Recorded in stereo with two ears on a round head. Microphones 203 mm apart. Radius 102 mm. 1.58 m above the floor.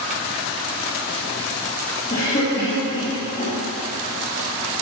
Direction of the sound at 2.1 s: 35° left (ahead or behind).